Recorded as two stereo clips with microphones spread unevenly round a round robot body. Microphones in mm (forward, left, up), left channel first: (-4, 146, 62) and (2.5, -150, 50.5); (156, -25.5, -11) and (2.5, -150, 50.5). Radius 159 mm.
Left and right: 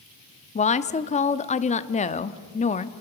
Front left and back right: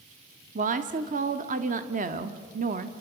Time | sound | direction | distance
0.6 | a woman speaking | 155° left | 0.8 m